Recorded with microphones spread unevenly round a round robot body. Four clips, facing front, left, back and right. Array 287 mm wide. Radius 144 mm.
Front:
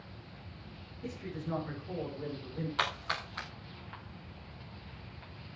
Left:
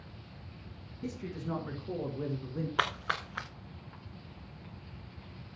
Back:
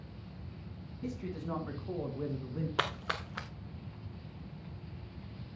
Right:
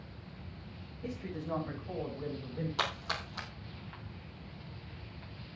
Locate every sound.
1.0 s a man speaking: 135° left, 4 m; by 2.7 s 140° left, 5 m
2.8 s a splash: 155° left, 0.9 m